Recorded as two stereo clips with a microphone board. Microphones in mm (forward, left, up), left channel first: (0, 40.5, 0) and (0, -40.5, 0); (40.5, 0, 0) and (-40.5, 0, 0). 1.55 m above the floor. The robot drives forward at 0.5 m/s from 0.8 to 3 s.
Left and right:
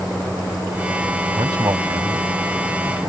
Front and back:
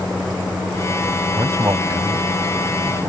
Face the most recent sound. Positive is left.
turn(degrees=-135)